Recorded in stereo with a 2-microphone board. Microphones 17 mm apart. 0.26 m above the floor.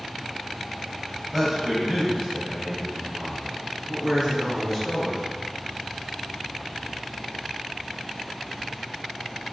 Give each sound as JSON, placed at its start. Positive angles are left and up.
{"t": 1.3, "sound": "a man speaking", "side_deg": -15, "distance_m": 0.9}